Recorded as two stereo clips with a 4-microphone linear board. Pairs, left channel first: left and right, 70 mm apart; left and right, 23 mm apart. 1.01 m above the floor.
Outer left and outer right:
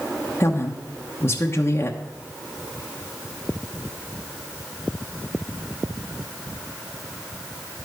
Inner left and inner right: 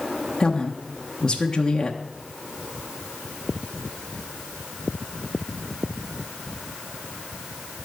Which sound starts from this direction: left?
A woman speaking, at 0.4 s.